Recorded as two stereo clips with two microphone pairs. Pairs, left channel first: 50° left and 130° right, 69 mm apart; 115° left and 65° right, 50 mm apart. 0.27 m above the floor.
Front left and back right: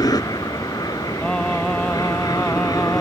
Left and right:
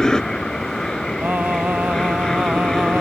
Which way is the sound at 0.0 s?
40° left.